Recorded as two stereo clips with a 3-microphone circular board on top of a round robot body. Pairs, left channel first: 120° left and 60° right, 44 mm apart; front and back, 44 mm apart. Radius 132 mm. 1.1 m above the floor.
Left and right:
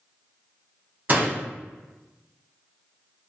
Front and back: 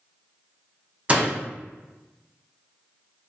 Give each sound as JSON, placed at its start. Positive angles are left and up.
{"t": 1.1, "sound": "a door slam", "azimuth_deg": -115, "distance_m": 0.6}